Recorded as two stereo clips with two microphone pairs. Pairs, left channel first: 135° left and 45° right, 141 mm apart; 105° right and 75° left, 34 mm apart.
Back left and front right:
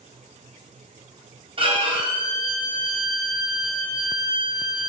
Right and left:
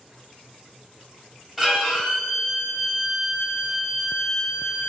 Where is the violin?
15° right, 0.7 m.